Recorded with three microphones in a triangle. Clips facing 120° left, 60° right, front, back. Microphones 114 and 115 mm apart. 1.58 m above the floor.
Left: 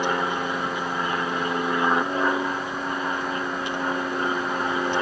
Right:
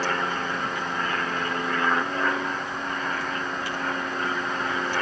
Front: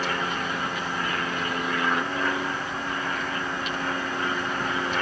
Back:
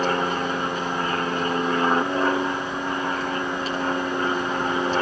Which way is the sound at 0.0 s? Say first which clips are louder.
Left 2 dB, back 5 dB; 175° right.